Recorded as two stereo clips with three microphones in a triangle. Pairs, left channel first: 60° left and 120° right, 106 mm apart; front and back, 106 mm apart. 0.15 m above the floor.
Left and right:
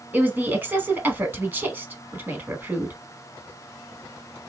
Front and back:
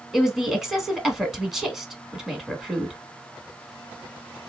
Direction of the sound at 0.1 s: 100° right.